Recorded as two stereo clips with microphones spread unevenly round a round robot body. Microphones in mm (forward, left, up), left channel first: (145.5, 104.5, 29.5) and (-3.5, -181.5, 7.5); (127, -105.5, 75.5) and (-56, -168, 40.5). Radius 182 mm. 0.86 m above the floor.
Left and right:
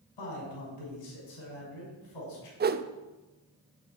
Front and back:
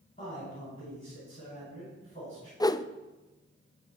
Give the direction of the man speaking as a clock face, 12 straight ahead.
9 o'clock.